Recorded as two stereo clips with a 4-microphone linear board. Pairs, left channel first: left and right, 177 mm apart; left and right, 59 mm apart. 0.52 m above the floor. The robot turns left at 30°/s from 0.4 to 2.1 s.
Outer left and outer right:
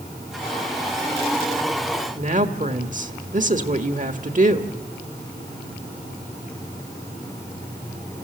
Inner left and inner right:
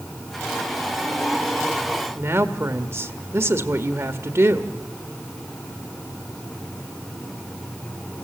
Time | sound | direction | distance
2.1 | a woman speaking | 45° right (ahead or behind) | 1.3 m